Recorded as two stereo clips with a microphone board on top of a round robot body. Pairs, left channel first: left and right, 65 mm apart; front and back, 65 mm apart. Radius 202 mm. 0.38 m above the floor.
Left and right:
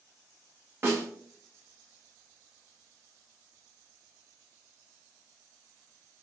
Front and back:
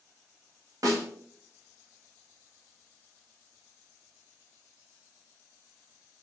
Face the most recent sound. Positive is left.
turn(degrees=-145)